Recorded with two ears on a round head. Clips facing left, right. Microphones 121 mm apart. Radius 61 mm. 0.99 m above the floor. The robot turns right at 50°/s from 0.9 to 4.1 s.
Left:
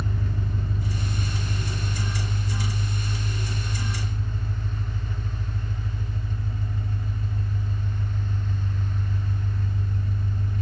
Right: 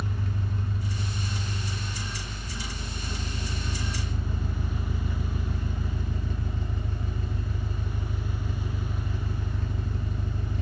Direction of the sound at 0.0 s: 90° left.